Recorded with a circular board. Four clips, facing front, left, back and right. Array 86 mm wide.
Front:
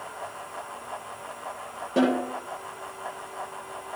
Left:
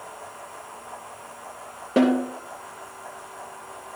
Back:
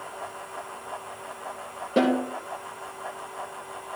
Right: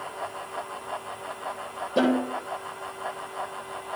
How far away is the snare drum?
About 7.5 m.